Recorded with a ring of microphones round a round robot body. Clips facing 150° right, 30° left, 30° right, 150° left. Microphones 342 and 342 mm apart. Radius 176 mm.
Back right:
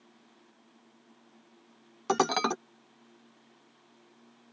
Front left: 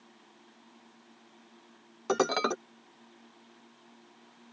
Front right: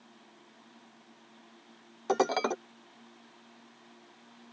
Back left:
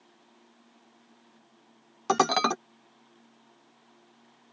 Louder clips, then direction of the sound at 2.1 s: Front left 1 dB, back left 1 dB; 155° left.